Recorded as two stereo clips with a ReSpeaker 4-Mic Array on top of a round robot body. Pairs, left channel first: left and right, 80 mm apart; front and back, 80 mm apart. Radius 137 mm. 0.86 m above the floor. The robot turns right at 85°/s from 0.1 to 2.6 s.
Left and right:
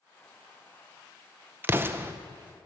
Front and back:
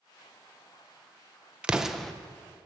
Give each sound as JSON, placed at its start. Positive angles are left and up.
{"t": 1.6, "sound": "an explosion", "azimuth_deg": -120, "distance_m": 0.7}